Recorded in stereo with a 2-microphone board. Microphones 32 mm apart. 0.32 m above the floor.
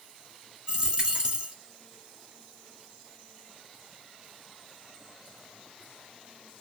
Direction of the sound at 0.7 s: 30° right (ahead or behind).